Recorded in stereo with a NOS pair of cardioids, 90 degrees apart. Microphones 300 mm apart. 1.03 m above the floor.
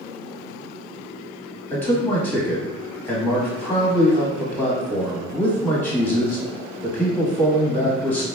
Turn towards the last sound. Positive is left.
turn(degrees=5)